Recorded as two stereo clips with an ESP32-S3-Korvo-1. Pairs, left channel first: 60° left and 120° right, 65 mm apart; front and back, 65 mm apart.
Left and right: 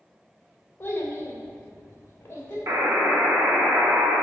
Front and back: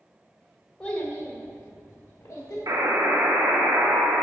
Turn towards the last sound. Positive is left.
turn(degrees=-160)